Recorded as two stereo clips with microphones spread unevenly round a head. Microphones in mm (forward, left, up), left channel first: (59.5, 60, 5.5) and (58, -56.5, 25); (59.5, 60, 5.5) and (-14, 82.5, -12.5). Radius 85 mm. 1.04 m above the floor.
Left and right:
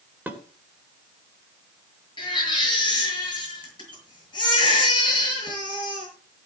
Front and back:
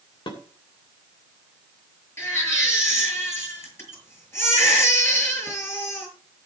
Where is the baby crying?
40° left, 7 m.